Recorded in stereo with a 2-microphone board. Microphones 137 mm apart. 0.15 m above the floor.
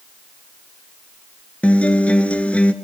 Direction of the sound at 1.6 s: 10° left (ahead or behind).